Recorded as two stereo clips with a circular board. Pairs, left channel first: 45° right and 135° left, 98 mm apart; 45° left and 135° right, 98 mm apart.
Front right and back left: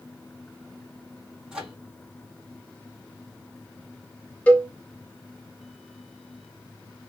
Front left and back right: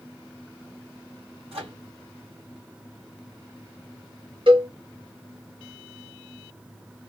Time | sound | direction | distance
1.5 | a microwave | 145° right | 1.9 m
4.5 | a cowbell | 120° right | 1.3 m